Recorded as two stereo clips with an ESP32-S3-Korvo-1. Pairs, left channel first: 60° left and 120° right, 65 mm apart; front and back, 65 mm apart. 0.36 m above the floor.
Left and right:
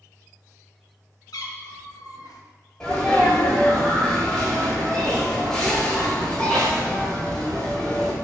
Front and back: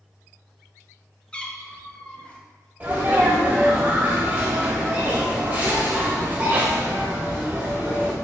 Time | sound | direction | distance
1.3 | a cat meowing | 70° left | 0.5 m
2.8 | a sneeze | 130° left | 1.4 m